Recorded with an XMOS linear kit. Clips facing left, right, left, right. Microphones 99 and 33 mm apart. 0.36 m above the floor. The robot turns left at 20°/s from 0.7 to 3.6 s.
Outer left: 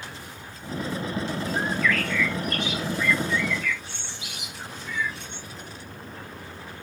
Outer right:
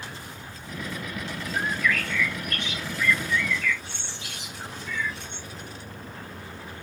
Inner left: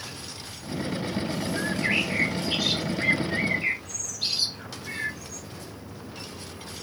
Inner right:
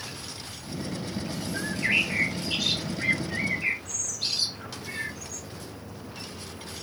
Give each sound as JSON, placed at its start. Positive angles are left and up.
{"t": 1.5, "sound": "a bird", "side_deg": -10, "distance_m": 1.5}